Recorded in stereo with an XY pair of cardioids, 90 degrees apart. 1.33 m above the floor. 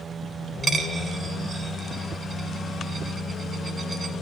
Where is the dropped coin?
45° right, 2.5 m.